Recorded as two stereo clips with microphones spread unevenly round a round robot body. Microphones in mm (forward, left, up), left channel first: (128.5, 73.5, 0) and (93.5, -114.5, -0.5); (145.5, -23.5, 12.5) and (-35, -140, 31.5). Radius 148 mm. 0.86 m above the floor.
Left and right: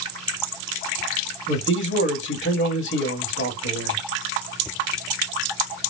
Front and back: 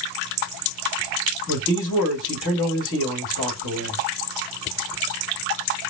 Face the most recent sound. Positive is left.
turn(degrees=70)